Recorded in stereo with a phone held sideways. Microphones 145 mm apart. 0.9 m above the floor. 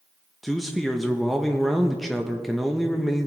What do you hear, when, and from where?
0.4 s a man speaking: centre (ahead or behind), 0.7 m